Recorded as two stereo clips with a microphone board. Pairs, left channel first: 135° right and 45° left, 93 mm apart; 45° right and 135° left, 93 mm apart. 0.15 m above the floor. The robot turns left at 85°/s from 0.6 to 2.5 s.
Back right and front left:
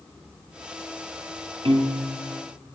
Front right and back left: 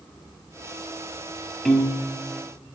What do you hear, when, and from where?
1.6 s a piano: 40° left, 2 m; by 2.2 s 5° right, 2 m